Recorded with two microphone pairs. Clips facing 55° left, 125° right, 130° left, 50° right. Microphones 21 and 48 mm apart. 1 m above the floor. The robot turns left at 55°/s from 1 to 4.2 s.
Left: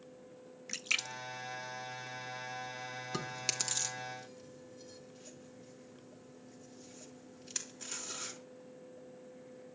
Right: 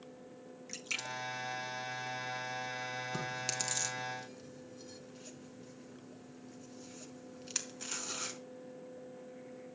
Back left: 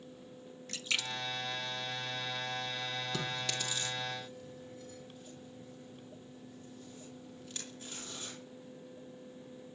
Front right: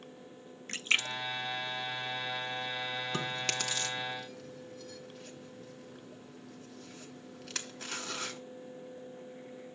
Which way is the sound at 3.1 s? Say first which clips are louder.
Left 3 dB, front right 3 dB; 5° left.